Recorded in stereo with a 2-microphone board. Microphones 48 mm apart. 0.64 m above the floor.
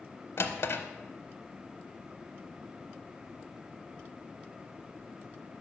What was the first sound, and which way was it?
A drawer, 55° left (ahead or behind).